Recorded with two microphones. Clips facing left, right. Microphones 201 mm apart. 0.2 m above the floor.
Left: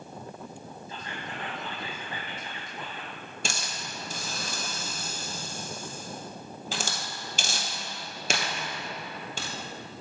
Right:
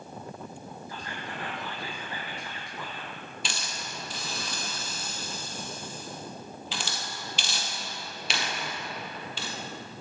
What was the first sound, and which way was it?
Whispering, 25° left (ahead or behind).